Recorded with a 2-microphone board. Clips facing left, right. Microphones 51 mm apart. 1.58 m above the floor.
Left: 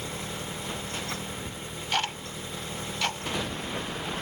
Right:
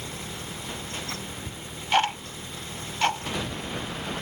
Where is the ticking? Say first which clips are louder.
Right 7 dB; 30° right (ahead or behind).